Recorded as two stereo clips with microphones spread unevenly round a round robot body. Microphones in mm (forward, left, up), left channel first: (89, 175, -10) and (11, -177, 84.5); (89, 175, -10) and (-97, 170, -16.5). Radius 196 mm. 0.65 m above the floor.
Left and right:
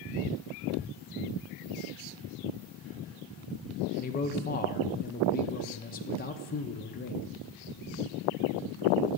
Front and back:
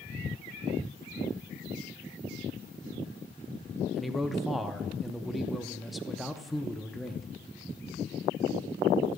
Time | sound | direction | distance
4.0 | a man speaking | 95° left | 0.8 m